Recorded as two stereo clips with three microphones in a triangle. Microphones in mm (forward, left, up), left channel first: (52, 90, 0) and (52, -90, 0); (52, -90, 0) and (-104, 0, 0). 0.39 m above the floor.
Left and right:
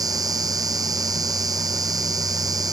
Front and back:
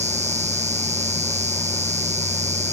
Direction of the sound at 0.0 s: 160° right.